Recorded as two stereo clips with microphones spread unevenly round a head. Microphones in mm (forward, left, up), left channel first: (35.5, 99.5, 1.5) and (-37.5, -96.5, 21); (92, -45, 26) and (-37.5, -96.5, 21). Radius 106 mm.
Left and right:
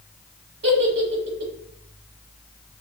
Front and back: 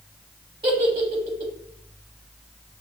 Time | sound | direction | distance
0.6 | a giggle | 105° right | 0.8 m